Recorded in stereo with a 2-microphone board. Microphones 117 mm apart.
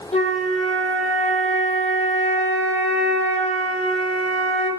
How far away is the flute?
About 3 m.